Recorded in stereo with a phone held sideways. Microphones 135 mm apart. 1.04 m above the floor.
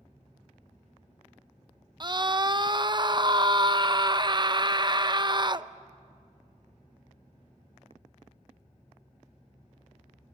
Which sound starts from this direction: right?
A scream, at 2.0 s.